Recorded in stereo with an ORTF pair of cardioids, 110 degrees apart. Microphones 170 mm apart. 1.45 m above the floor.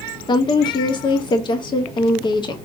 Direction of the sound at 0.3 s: 30° left.